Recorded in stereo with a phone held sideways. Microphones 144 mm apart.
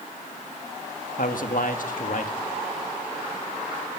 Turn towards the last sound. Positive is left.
turn(degrees=70)  # may be behind; listen again after turning